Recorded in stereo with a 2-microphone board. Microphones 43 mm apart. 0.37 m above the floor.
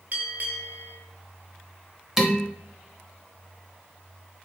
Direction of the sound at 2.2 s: 10° right (ahead or behind).